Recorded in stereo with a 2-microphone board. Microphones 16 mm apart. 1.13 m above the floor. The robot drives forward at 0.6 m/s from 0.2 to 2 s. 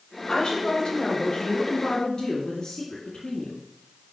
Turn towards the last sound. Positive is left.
turn(degrees=65)  # may be behind; listen again after turning